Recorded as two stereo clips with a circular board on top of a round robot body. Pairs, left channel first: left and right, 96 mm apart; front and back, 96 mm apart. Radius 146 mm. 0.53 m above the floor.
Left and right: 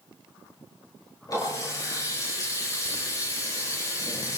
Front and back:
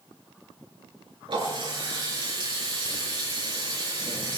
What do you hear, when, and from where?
1.3 s a running tap: 140° left, 6.5 m